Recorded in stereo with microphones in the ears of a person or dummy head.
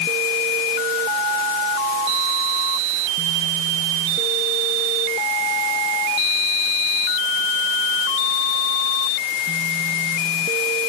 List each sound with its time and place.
Only background noise.